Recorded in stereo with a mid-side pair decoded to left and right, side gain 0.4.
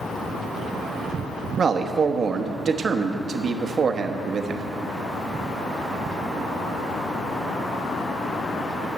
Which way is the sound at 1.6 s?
50° right.